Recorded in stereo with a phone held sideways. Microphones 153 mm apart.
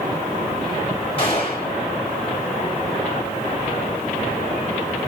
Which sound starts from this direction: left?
A gunshot, at 1.2 s.